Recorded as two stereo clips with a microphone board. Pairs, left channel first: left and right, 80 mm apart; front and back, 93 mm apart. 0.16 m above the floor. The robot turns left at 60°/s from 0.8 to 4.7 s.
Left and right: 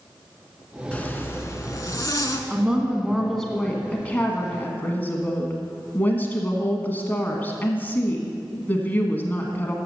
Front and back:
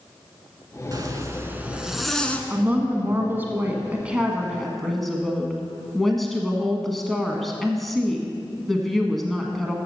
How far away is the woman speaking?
About 1.2 m.